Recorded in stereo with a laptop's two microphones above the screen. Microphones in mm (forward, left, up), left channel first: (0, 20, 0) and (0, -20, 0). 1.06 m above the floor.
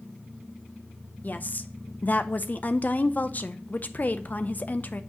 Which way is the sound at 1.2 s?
40° left (ahead or behind).